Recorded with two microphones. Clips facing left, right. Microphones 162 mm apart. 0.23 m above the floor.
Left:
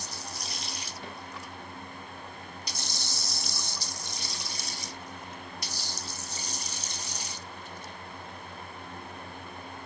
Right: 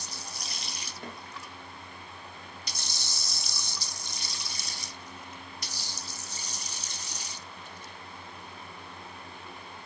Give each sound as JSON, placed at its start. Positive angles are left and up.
{"t": 1.0, "sound": "a snare drum", "side_deg": -45, "distance_m": 3.5}